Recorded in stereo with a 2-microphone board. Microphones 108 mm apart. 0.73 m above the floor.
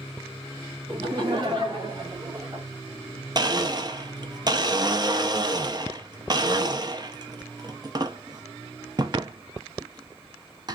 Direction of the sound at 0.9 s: 40° right (ahead or behind).